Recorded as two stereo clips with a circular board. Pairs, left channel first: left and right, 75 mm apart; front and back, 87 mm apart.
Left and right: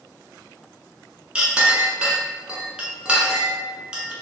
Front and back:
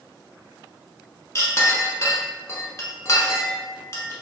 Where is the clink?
25° right, 0.8 m.